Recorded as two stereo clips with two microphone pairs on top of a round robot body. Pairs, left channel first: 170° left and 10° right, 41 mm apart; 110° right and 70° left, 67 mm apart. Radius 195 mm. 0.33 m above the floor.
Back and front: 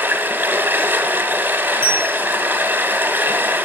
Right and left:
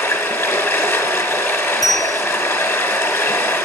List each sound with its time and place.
0.0 s running water: 55° right, 1.3 m
1.8 s a bell: 100° left, 3.5 m